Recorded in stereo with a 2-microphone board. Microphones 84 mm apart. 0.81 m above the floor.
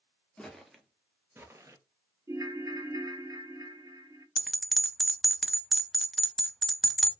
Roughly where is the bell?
Centre.